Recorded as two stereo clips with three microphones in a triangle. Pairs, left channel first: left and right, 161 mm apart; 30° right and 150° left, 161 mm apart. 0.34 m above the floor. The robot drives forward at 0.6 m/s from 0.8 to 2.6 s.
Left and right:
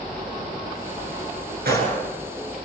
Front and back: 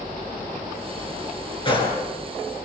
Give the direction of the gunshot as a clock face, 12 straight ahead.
3 o'clock.